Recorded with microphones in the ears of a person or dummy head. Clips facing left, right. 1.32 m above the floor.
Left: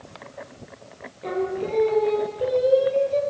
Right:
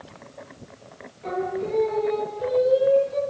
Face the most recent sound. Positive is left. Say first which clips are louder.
# left 1 dB
turn(degrees=50)  # may be behind; listen again after turning